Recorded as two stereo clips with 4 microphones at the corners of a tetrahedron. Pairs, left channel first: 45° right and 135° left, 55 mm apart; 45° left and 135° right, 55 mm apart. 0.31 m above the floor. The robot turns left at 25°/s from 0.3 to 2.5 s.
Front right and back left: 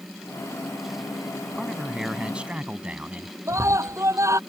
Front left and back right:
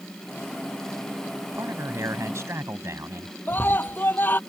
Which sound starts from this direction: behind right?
A man speaking, at 1.5 s.